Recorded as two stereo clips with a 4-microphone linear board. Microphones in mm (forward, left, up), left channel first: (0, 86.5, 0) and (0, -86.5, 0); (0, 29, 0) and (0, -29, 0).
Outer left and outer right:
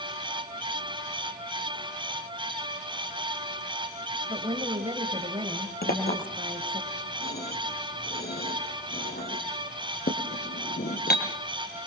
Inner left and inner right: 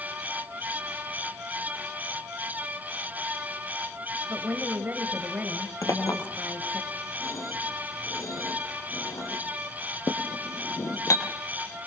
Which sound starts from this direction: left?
A clink, at 5.8 s.